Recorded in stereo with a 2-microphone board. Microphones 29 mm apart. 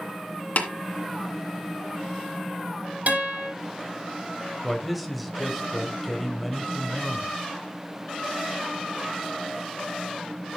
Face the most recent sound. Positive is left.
turn(degrees=-5)  # may be behind; listen again after turning